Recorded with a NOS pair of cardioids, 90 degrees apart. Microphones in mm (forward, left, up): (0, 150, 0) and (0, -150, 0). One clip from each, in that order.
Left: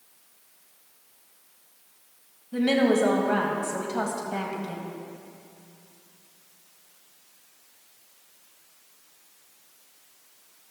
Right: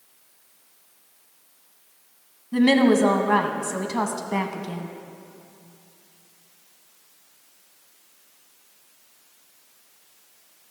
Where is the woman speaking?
25° right, 1.5 m.